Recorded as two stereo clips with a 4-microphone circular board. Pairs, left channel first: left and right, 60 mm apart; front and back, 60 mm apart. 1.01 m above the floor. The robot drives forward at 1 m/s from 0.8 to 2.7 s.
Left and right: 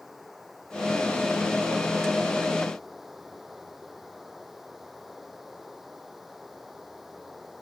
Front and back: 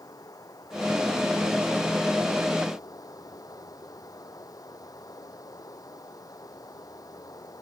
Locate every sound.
0.0 s running water: 5° right